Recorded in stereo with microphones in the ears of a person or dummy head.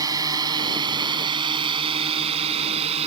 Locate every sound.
0.0 s a drone: 25° right (ahead or behind); by 3.1 s 40° right (ahead or behind)